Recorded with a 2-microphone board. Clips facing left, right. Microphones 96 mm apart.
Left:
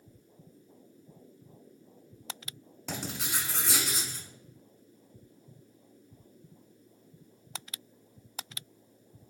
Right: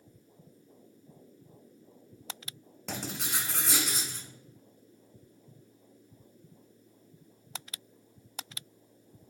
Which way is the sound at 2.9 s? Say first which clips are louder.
Even; centre (ahead or behind).